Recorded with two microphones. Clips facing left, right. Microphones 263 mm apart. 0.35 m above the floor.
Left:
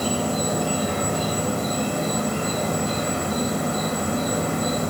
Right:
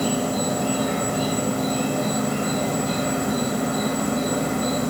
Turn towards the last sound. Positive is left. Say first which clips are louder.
# right 1 dB
turn(degrees=-65)  # may be behind; listen again after turning